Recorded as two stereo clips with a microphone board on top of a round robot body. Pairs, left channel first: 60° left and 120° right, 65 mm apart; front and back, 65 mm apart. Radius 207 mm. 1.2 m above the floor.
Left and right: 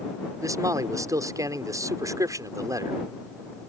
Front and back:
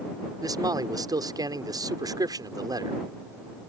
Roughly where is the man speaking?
Behind right.